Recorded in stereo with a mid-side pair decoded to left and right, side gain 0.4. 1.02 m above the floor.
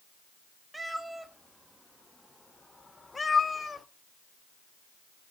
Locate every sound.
0.7 s a cat meowing: 20° right, 2 m; by 3.9 s 40° left, 1.4 m